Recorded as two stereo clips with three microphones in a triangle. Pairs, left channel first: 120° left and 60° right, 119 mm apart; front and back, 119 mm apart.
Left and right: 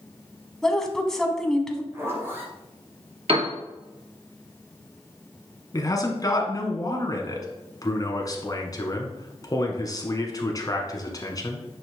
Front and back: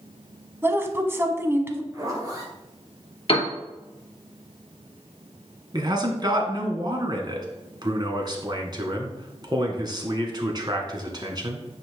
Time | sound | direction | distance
0.6 | a woman speaking | 160° right | 1.0 m
1.9 | a zipper | 125° right | 3 m
3.3 | a piano | 30° right | 2.5 m
5.7 | a man speaking | 160° left | 1.6 m